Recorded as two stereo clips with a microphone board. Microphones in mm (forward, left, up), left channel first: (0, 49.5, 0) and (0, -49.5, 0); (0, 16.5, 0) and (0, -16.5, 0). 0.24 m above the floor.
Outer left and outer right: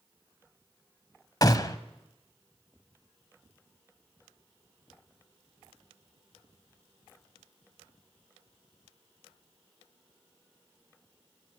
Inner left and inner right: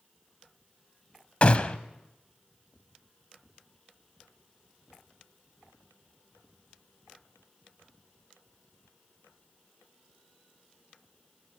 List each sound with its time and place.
1.4 s a gunshot: 40° left (ahead or behind), 1.0 m